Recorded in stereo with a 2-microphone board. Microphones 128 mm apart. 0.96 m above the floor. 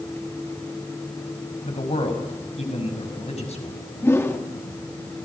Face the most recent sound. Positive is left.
turn(degrees=20)  # may be behind; listen again after turning